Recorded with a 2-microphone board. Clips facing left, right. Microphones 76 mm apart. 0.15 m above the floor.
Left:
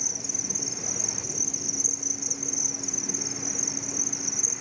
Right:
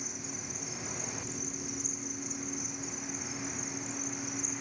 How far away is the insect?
About 1.0 m.